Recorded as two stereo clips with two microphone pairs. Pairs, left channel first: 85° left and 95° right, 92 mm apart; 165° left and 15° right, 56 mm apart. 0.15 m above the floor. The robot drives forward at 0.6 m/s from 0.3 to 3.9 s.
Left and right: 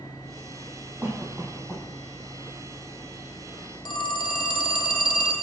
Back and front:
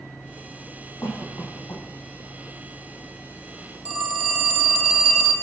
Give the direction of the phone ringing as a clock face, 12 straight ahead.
9 o'clock.